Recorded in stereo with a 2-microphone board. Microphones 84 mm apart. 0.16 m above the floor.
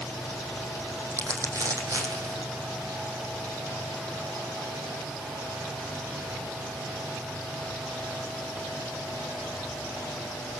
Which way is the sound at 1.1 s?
40° right (ahead or behind).